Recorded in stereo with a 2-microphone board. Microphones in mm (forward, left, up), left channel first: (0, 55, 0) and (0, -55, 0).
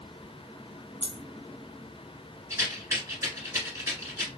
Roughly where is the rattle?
Right.